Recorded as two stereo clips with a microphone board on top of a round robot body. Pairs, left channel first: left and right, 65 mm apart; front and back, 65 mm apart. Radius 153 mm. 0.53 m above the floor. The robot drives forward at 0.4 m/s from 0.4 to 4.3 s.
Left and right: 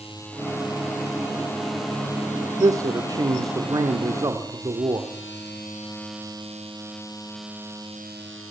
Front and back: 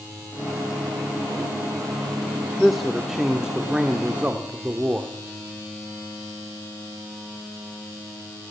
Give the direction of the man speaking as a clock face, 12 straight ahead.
3 o'clock.